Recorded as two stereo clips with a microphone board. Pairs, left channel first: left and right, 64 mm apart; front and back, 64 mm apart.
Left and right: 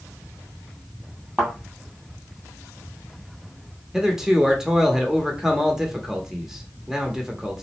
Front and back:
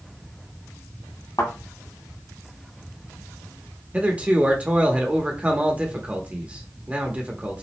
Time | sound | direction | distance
1.4 | a thud | 15° right | 1.9 m
3.9 | a man speaking | 160° right | 0.8 m